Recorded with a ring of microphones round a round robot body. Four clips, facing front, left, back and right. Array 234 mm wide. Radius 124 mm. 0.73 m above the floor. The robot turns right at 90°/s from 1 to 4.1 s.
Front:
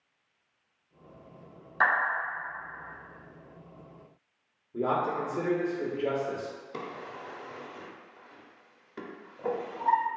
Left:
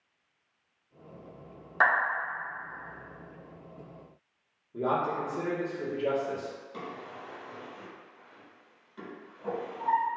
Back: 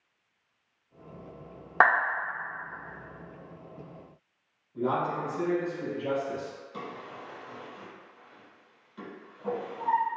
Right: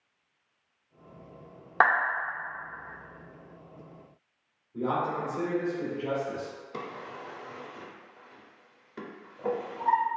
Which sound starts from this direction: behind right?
A clap, at 1.8 s.